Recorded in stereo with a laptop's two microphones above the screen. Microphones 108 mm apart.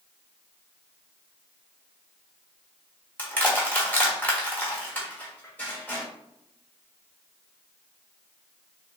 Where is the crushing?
15° left (ahead or behind), 1.5 m.